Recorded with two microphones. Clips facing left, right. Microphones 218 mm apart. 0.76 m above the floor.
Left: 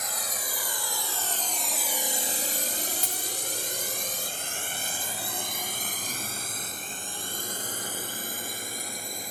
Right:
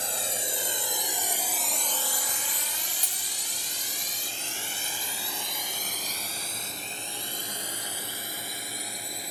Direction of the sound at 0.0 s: 30° right (ahead or behind).